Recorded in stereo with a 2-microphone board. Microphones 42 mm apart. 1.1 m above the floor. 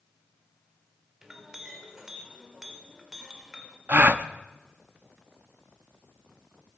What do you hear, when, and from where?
1.2 s a clink: 10° right (ahead or behind), 2 m
3.9 s a gasp: 40° right (ahead or behind), 0.6 m